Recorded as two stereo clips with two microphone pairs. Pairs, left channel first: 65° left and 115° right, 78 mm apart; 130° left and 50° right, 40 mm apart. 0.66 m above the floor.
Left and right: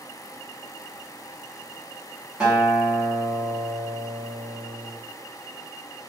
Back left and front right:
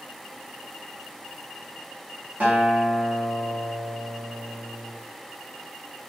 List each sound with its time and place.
2.4 s a guitar: 40° right, 1.0 m